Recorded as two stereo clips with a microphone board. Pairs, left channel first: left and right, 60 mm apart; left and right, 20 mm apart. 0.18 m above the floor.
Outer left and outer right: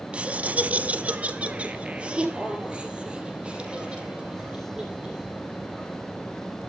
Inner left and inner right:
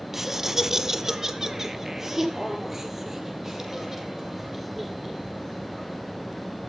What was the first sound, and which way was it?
Laughter, 20° right (ahead or behind).